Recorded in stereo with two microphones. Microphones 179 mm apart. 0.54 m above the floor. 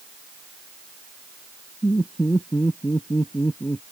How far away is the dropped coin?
I don't hear a dropped coin.